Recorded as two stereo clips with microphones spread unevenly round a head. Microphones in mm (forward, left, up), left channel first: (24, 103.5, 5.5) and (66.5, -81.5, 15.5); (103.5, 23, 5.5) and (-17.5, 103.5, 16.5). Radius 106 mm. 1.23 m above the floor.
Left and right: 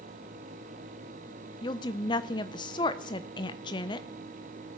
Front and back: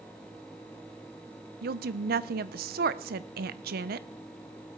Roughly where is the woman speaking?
Behind.